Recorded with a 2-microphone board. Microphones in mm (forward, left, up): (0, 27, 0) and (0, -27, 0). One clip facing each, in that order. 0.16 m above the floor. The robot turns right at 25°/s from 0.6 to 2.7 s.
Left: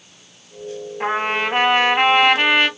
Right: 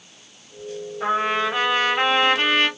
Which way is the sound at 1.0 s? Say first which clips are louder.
Left 1 dB; 110° left.